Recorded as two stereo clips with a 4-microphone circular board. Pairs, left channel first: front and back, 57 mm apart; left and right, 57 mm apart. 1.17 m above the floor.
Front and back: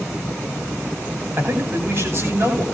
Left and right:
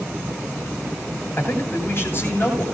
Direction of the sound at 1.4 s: 140° left.